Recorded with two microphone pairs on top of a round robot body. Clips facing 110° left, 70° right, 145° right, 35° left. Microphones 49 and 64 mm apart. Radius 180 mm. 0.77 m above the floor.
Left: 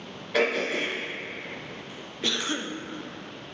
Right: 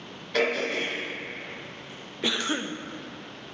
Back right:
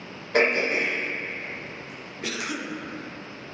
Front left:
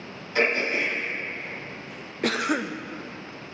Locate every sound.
0.3 s throat clearing: 170° right, 2.5 m
2.2 s a cough: 5° left, 0.6 m